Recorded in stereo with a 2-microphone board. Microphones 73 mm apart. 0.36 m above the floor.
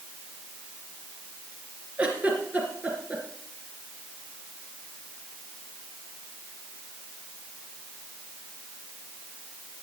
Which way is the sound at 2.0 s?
20° right (ahead or behind).